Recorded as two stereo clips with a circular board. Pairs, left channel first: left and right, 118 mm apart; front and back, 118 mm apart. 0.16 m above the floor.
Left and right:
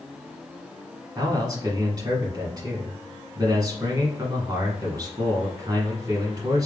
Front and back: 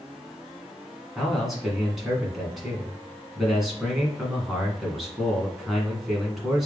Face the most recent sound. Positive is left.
turn(degrees=-95)